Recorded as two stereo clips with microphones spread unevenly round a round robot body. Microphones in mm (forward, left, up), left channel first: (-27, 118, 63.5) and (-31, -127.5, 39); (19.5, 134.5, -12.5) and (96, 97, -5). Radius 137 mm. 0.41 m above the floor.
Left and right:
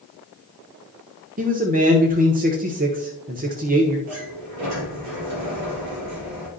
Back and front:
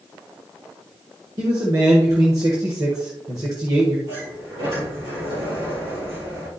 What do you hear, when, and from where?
1.4 s a man speaking: 75° right, 1.1 m
4.1 s a sliding door: 65° right, 3.5 m